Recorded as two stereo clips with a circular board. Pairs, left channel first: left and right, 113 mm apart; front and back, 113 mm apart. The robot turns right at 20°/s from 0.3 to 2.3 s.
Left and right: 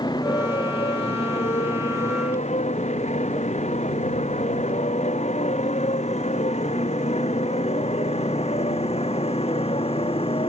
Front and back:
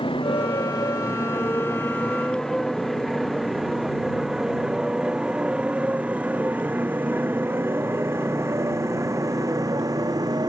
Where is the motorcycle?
40° left; by 10.5 s 125° left.